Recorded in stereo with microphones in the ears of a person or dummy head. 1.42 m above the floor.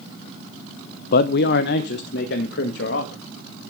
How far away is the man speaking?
About 0.6 m.